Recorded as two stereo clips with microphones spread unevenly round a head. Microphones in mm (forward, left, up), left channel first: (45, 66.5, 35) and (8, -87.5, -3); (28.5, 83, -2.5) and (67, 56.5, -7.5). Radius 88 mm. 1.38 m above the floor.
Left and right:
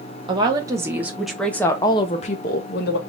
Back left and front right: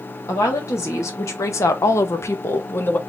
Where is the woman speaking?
170° right, 1.2 m; by 3.0 s 100° left, 0.9 m.